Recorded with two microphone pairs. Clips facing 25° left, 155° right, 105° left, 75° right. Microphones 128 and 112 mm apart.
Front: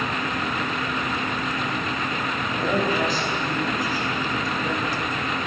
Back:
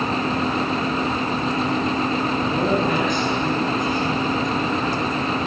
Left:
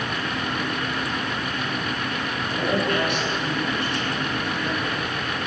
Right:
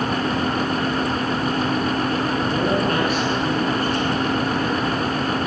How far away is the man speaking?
About 8.5 m.